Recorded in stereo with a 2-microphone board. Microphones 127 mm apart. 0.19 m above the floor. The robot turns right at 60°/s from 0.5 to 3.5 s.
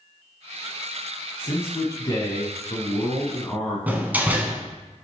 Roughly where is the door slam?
Centre.